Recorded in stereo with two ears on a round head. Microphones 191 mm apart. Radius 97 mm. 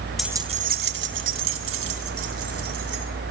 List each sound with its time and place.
0.2 s keys jangling: centre (ahead or behind), 0.5 m; by 3.0 s 80° right, 3 m